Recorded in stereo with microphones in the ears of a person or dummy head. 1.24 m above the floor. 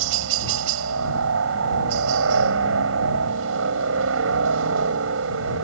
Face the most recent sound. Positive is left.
turn(degrees=-75)  # may be behind; listen again after turning